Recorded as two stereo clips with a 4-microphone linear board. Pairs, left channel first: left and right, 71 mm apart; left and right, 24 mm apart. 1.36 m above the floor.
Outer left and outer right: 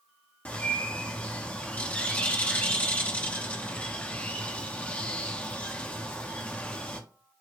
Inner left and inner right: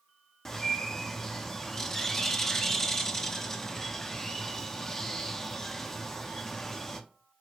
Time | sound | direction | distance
0.5 | a bird | 15° left (ahead or behind) | 0.6 m